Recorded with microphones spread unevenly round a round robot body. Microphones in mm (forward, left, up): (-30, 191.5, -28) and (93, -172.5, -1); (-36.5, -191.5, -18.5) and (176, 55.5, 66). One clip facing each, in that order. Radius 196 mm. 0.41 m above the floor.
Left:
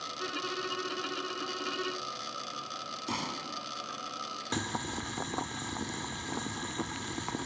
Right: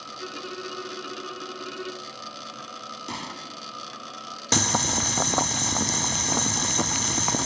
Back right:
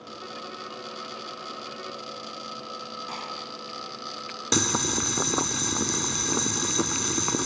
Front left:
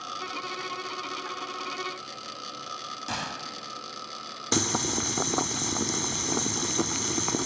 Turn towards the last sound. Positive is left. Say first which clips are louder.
# right 9 dB, back right 1 dB
turn(degrees=-40)